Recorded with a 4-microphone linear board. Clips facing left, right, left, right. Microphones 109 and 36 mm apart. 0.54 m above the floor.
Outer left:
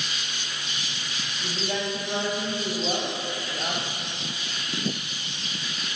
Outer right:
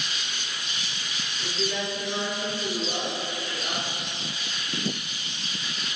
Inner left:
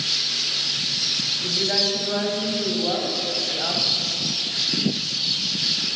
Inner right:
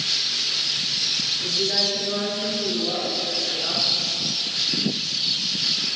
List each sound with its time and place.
1.4 s a woman speaking: 70° left (ahead or behind), 4 m